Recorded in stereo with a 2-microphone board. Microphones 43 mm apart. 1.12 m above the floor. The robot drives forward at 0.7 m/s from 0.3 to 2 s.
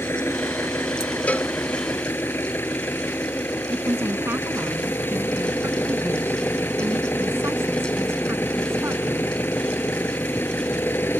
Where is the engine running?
70° left (ahead or behind); by 11.2 s 60° left (ahead or behind).